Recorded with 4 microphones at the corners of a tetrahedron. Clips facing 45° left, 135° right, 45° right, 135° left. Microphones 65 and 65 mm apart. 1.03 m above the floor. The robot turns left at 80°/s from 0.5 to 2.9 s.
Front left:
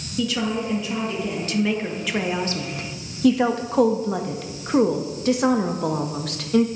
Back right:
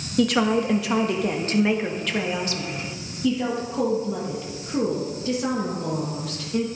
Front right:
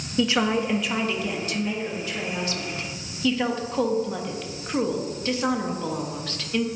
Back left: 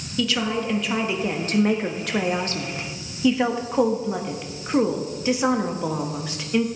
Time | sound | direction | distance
0.2 | a woman speaking | 105° right | 1.5 m